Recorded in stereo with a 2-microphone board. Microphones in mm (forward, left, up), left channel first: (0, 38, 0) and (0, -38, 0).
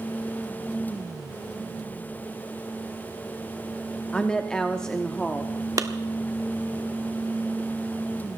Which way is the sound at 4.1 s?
10° left (ahead or behind).